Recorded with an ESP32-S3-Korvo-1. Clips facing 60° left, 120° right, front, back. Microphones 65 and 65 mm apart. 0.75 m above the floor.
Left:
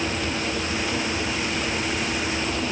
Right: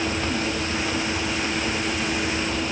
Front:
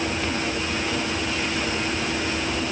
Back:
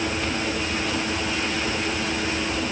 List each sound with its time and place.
Only background noise.